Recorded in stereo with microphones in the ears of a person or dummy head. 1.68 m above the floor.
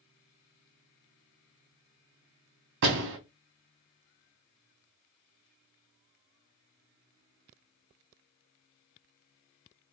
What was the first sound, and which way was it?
A door slam, 55° right (ahead or behind).